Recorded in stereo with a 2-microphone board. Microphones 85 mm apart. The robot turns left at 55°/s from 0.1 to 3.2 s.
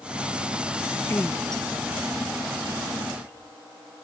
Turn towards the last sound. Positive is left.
turn(degrees=-85)